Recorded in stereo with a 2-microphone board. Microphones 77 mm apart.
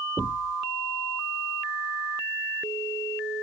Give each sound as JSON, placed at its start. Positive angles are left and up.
{"t": 0.2, "sound": "knocking", "side_deg": -15}